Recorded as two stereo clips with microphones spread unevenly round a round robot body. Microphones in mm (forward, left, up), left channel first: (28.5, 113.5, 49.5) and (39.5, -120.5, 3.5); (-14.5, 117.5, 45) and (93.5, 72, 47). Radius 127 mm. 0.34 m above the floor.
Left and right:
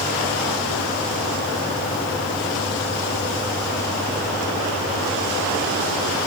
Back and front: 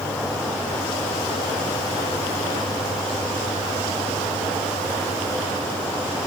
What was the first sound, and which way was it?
Only background noise.